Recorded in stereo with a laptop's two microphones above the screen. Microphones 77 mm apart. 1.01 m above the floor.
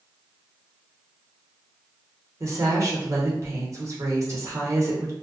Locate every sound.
2.4 s a woman speaking: 45° right (ahead or behind), 0.9 m